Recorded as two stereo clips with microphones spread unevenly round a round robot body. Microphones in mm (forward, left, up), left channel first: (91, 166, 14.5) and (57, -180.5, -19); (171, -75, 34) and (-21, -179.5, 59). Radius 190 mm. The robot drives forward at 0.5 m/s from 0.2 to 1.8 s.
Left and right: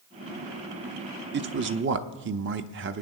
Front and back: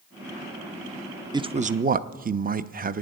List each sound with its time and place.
1.3 s a man speaking: 80° right, 0.6 m; by 3.0 s 115° right, 0.6 m